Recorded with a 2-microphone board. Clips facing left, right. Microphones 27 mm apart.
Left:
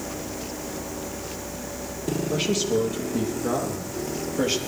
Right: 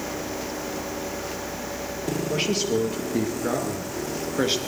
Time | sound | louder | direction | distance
2.3 | a man speaking | even | 45° right (ahead or behind) | 3.5 m